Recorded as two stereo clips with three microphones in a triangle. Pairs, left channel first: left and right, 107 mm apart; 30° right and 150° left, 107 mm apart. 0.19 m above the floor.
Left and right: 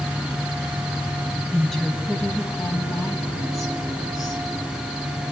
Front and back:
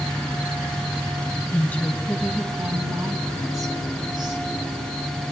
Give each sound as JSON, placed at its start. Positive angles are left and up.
{"t": 1.5, "sound": "a woman speaking", "azimuth_deg": 0, "distance_m": 1.3}